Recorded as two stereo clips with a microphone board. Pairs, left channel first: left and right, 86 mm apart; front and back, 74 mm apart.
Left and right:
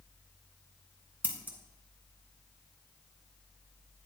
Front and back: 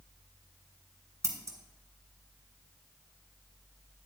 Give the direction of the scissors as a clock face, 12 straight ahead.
5 o'clock.